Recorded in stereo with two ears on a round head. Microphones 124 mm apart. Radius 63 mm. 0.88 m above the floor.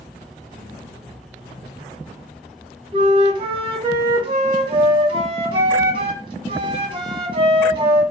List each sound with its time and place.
2.9 s a flute: 40° right (ahead or behind), 0.6 m